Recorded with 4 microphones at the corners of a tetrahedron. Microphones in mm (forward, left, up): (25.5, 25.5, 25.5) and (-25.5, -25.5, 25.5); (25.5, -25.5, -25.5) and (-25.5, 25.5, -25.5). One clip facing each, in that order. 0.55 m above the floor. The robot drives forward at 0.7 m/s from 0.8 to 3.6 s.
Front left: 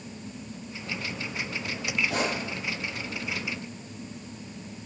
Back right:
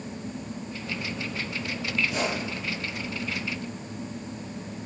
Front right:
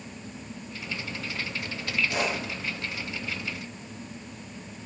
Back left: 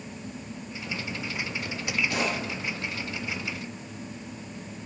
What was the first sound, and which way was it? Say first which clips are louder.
A pop: even, even; 55° left.